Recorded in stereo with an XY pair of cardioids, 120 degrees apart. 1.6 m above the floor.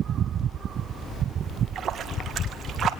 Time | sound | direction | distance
1.4 | a splash | 45° right | 1.9 m